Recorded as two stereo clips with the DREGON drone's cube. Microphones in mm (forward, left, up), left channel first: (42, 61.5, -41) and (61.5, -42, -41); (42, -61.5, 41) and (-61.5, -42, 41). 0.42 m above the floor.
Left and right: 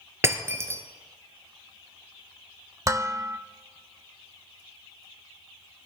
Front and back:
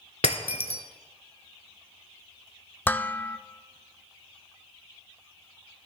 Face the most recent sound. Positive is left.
turn(degrees=-70)